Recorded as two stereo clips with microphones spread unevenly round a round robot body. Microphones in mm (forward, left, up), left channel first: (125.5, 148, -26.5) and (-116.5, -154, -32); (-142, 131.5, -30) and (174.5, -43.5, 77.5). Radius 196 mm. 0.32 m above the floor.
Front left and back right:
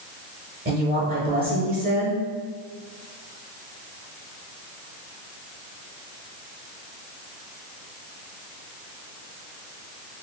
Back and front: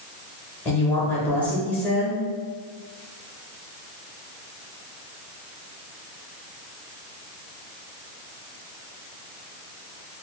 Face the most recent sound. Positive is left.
turn(degrees=-165)